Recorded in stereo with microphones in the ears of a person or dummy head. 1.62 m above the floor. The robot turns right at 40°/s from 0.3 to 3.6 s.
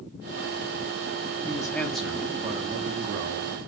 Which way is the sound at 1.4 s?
160° left.